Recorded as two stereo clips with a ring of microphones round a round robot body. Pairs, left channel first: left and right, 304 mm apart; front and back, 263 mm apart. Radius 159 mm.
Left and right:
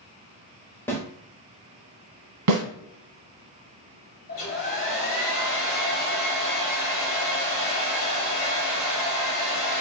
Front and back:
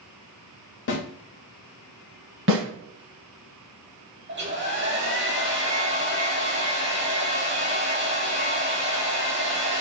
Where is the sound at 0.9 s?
10° left, 0.9 m.